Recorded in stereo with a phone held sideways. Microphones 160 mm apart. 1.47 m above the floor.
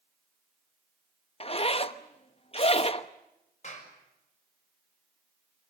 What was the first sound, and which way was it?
A zipper, 40° left (ahead or behind).